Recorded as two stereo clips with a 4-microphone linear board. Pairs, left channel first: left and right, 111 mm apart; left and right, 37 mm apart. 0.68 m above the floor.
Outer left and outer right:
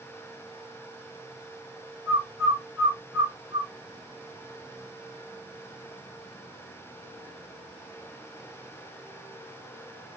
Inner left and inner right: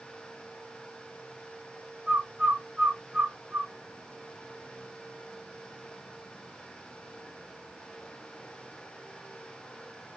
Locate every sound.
2.1 s a bird: 30° right (ahead or behind), 1.5 m